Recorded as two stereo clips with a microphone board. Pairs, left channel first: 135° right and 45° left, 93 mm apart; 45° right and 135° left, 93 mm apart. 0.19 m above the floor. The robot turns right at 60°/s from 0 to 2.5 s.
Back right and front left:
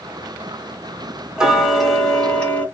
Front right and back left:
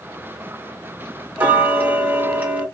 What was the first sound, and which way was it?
Ticking, 110° left.